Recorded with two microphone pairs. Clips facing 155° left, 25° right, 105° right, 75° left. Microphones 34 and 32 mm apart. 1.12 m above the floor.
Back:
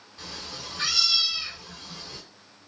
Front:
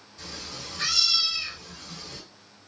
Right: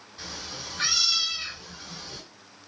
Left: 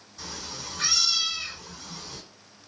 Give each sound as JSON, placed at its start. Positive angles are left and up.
{"t": 0.2, "sound": "a cat meowing", "azimuth_deg": -155, "distance_m": 1.4}